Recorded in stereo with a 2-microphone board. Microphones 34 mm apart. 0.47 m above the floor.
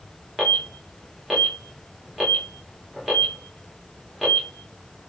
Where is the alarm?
Centre (ahead or behind), 1.4 m.